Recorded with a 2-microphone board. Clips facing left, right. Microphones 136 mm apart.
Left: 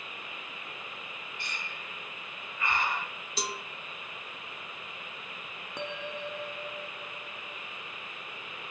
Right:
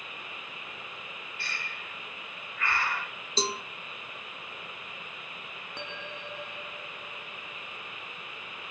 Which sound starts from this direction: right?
A cowbell, at 3.4 s.